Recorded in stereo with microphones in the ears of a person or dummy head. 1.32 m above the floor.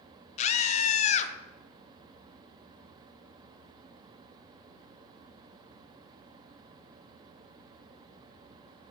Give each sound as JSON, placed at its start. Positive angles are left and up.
{"t": 0.4, "sound": "a scream", "side_deg": 35, "distance_m": 0.7}